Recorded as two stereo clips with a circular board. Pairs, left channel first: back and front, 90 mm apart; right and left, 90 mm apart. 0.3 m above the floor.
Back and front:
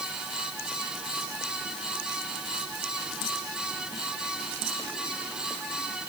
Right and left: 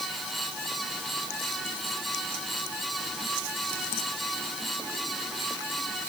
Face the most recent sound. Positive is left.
No sound to turn to.